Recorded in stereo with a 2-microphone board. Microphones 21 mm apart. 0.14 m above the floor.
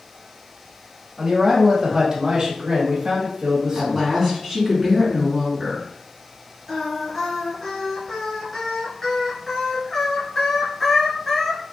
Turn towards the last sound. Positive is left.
turn(degrees=20)  # may be behind; listen again after turning